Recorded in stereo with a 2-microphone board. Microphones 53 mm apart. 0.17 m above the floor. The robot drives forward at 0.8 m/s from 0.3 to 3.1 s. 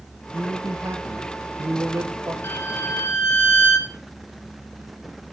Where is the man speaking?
70° right (ahead or behind), 3 m; by 2.3 s 60° right (ahead or behind), 3 m.